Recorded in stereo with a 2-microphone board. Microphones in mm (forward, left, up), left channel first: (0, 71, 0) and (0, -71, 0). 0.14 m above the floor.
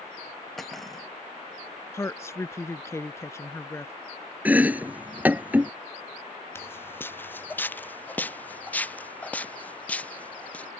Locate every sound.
0.6 s cutlery clinking: centre (ahead or behind)
1.9 s a woman speaking: 20° left (ahead or behind)
4.5 s chopping: 10° right (ahead or behind)
6.5 s footsteps: 15° left (ahead or behind); by 10.7 s 10° left (ahead or behind)